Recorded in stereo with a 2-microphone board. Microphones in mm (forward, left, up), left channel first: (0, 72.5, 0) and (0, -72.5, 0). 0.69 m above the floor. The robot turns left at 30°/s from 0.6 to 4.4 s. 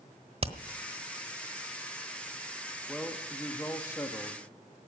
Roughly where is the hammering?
Right.